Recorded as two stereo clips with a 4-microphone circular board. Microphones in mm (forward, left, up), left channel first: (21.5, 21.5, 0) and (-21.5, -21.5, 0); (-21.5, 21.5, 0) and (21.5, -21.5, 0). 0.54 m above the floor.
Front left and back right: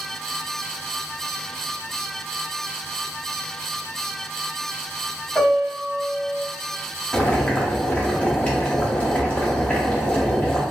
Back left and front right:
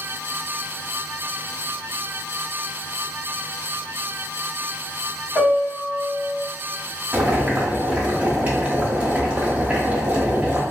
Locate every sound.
5.3 s a piano: 140° left, 1.8 m
7.1 s boiling: 10° right, 0.8 m